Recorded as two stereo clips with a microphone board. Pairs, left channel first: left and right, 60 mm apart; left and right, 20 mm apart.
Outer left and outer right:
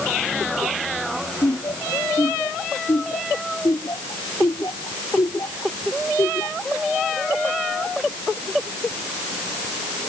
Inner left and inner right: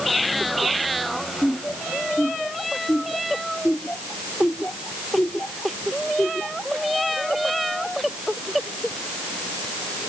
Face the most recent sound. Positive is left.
turn(degrees=80)